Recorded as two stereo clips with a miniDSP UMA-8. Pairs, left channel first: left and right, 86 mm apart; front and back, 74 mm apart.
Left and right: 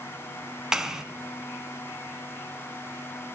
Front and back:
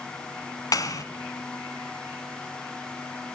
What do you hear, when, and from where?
0.7 s a clap: 5° right, 2 m